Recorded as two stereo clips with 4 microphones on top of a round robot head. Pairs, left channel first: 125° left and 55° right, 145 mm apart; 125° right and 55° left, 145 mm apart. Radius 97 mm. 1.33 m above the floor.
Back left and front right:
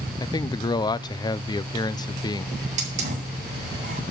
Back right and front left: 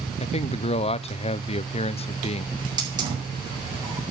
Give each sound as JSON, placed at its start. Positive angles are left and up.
{"t": 0.2, "sound": "a man speaking", "azimuth_deg": -170, "distance_m": 0.6}
{"t": 2.6, "sound": "a hiss", "azimuth_deg": -10, "distance_m": 6.0}